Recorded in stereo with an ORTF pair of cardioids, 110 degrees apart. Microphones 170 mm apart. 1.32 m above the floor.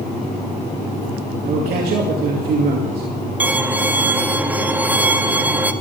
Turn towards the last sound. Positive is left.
turn(degrees=-10)